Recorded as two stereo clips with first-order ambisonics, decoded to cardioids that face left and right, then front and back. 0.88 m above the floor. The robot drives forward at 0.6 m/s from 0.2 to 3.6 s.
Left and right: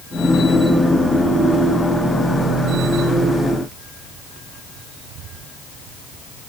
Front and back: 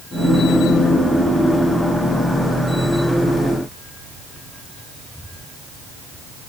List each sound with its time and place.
Only background noise.